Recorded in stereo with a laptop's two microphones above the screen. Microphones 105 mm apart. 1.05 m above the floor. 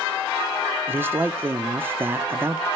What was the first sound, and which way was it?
A man speaking, 20° right (ahead or behind).